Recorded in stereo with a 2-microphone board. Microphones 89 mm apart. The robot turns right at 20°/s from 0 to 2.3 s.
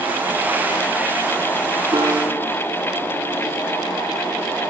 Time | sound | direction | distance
1.9 | a piano | 60° right (ahead or behind) | 1.1 m